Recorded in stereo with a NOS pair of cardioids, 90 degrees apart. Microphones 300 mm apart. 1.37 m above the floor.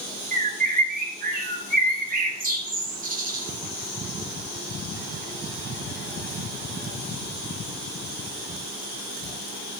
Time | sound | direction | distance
0.3 | a bird | 30° right | 2.5 m